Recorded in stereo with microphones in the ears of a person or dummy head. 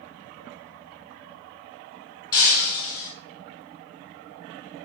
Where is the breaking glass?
30° left (ahead or behind), 1.7 m.